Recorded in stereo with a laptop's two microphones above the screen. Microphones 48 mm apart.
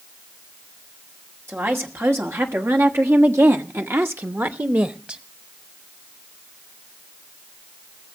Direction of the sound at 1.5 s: 60° right (ahead or behind).